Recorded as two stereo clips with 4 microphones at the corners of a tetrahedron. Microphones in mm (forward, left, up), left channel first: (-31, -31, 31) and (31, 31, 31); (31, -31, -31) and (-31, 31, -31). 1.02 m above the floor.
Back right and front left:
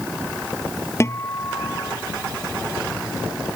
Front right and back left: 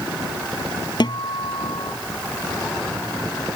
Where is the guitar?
75° right.